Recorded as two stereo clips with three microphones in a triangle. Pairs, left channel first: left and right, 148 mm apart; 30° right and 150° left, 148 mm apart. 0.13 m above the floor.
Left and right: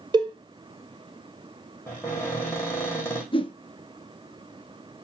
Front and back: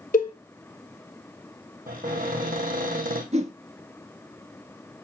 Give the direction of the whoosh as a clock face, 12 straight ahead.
8 o'clock.